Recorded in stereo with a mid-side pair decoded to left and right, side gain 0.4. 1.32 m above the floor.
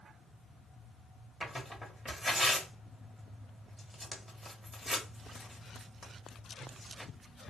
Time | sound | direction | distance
1.4 | tearing paper | straight ahead | 1.6 m